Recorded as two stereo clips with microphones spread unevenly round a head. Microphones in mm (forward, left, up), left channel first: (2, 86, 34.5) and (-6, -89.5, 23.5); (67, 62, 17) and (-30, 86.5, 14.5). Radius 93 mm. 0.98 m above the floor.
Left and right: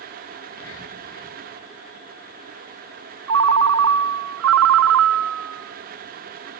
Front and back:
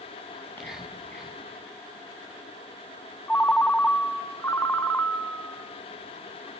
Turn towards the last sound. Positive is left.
turn(degrees=-95)